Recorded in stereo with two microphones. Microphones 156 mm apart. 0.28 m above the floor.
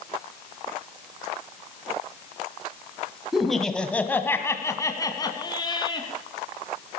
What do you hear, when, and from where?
3.3 s laughter: 5° right (ahead or behind), 1.6 m; by 6.1 s 30° left (ahead or behind), 3 m